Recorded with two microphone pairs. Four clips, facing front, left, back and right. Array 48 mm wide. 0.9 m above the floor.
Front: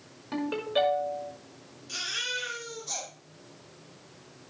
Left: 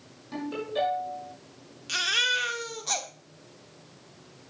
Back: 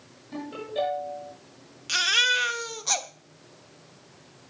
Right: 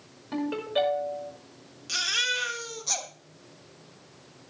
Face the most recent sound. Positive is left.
turn(degrees=170)